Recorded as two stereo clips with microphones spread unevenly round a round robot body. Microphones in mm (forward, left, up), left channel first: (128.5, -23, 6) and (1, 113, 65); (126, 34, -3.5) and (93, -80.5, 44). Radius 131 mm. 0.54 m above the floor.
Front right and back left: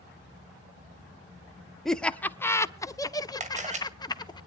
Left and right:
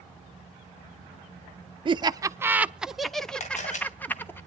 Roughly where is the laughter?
Ahead right.